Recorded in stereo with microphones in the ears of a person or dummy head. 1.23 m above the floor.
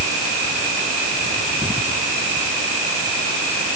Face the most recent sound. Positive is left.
No sound to turn to.